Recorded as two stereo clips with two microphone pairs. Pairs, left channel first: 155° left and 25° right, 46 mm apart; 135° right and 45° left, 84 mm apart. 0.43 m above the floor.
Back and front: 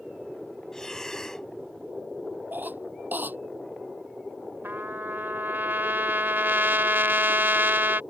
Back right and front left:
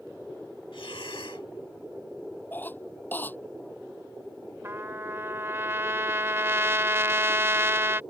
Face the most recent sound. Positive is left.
turn(degrees=-10)